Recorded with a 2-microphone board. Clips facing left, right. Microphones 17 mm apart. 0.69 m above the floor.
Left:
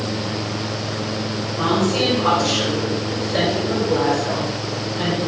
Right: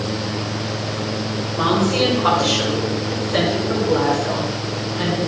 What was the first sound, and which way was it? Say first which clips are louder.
A woman speaking: right 1 dB; 60° right (ahead or behind).